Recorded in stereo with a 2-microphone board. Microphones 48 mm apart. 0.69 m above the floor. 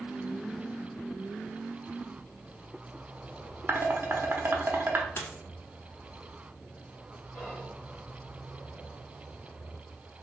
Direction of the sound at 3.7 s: 45° right (ahead or behind).